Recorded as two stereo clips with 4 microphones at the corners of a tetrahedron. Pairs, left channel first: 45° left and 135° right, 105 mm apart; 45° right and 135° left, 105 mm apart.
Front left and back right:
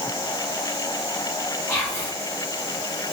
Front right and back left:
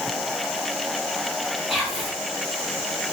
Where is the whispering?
50° left, 1.3 m.